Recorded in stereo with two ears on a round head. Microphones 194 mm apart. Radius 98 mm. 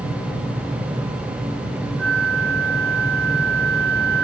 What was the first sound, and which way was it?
A flute, 50° right (ahead or behind).